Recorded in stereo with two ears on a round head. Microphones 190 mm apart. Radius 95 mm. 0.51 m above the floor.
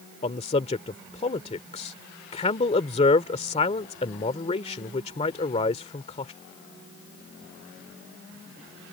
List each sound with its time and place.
0.2 s a man speaking: 30° left (ahead or behind)